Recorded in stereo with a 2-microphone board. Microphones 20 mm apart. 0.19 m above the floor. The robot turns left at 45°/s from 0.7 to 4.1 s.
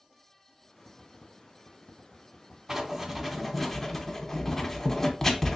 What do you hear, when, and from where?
2.7 s writing: 25° right (ahead or behind), 0.7 m; by 5.6 s 10° left (ahead or behind), 0.7 m